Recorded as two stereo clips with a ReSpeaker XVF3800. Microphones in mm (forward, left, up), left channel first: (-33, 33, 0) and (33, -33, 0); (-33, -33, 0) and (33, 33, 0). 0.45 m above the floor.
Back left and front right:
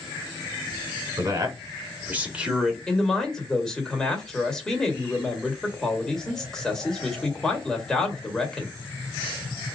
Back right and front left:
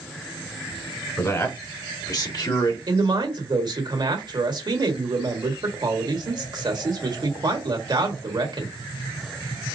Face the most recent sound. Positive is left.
turn(degrees=50)